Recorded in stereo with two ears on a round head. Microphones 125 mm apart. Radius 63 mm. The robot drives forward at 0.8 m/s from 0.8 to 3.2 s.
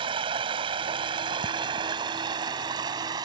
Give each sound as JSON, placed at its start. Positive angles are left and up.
{"t": 0.0, "sound": "running water", "side_deg": -35}